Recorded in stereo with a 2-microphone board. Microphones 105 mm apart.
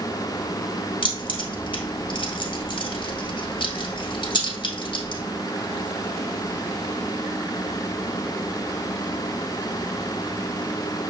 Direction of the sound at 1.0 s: 50° left (ahead or behind).